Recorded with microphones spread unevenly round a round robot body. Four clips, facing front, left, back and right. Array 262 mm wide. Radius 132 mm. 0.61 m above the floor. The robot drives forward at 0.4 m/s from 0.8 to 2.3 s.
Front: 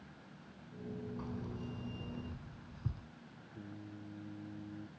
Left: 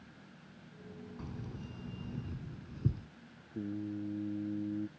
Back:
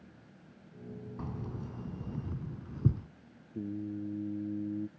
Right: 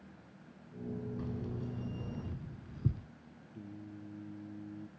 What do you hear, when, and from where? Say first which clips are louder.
1.2 s keys jangling: right 5 dB, back 2 dB; 170° left; by 3.1 s 175° left
3.5 s singing: left 10 dB, back 13 dB; 150° left